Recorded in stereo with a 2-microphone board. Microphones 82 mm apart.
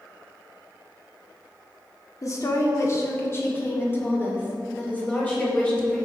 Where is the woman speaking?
45° left (ahead or behind), 1.6 m; by 6.1 s 15° left (ahead or behind), 3 m.